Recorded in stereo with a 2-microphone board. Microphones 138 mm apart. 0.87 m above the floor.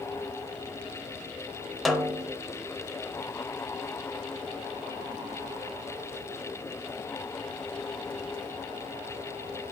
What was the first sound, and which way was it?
A snare drum, centre (ahead or behind).